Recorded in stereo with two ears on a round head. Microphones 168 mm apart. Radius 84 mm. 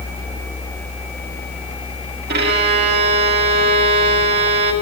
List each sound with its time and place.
2.3 s a violin: 55° right (ahead or behind), 2 m